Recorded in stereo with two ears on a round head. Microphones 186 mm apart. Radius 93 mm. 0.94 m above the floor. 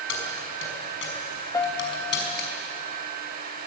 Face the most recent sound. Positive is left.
turn(degrees=15)  # may be behind; listen again after turning